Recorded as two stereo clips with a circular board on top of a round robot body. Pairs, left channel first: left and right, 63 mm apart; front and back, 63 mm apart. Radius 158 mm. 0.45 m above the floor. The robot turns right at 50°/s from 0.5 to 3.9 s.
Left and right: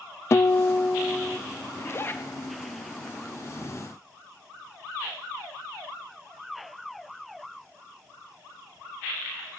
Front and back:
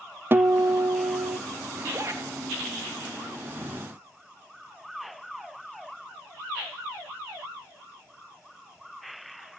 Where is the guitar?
130° left, 0.5 m; by 1.4 s 175° left, 0.5 m.